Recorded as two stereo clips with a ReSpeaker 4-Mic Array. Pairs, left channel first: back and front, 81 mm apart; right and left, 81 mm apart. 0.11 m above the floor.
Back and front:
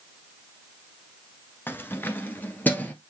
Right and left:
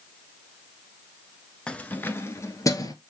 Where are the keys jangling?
155° right, 1.1 m; by 2.9 s 115° right, 1.6 m.